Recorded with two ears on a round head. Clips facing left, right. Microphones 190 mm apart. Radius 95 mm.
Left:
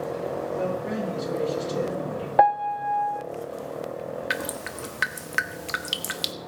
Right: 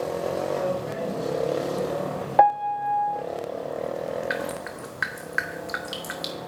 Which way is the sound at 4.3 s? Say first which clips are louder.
Right 2 dB; 40° left (ahead or behind).